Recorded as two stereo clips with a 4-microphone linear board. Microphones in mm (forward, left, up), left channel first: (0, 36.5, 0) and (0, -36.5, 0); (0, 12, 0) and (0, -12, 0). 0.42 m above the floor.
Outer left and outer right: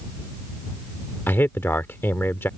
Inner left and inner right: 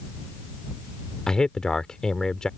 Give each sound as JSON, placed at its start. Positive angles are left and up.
{"t": 1.3, "sound": "a man speaking", "side_deg": 30}